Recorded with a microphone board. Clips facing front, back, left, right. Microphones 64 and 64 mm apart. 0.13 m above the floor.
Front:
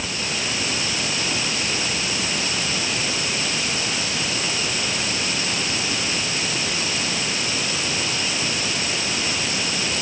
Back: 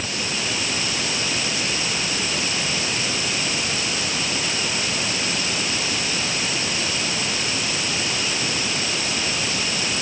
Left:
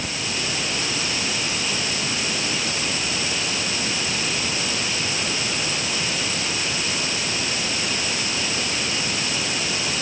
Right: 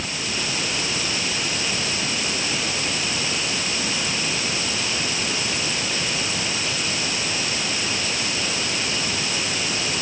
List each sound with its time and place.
Only background noise.